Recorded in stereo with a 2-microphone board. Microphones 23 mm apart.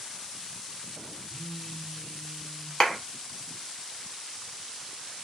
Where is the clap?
35° left (ahead or behind), 1.0 m.